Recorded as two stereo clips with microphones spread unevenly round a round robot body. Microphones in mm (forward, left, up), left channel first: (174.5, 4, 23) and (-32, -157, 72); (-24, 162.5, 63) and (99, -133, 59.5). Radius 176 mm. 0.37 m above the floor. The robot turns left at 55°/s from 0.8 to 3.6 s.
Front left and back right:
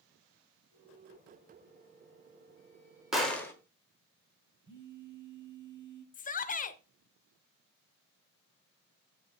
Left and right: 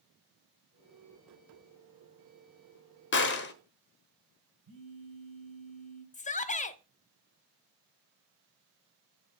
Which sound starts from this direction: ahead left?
A shout, at 6.1 s.